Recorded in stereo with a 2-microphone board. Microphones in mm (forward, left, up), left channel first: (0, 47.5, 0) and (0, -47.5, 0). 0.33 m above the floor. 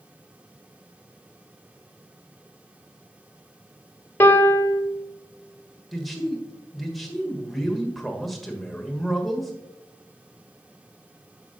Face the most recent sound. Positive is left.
turn(degrees=0)  # may be behind; listen again after turning